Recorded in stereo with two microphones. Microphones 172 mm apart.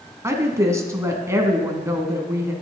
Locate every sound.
0.2 s a woman speaking: 15° right (ahead or behind), 1.4 m